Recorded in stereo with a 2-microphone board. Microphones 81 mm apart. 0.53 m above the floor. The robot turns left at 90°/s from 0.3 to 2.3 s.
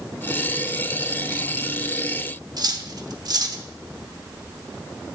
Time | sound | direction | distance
2.6 | cutlery clinking | 55° right (ahead or behind) | 0.7 m